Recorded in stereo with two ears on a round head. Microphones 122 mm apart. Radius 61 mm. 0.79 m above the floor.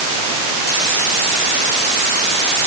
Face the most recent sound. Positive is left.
No sound to turn to.